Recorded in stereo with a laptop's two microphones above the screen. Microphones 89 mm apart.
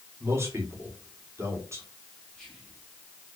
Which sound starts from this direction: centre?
Whispering, at 2.3 s.